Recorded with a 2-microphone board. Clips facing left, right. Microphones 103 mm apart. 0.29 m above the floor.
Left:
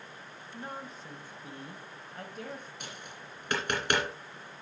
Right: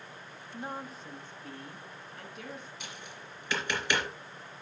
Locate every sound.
0.5 s a woman speaking: 15° right (ahead or behind), 1.4 m; by 2.7 s 50° left (ahead or behind), 1.7 m
2.8 s tapping: 55° left (ahead or behind), 3.5 m